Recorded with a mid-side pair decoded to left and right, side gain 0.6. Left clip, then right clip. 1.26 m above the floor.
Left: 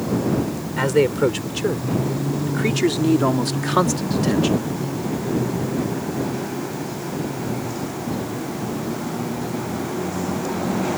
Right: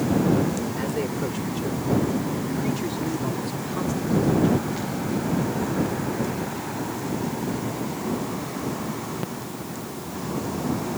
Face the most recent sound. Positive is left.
turn(degrees=75)